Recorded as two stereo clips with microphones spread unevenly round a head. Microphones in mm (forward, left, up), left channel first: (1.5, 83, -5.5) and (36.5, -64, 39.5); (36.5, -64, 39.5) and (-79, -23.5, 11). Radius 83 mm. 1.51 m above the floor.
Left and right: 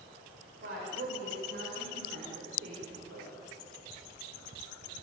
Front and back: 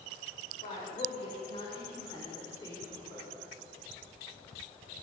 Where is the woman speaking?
55° right, 7 m; by 3.4 s 80° right, 6 m.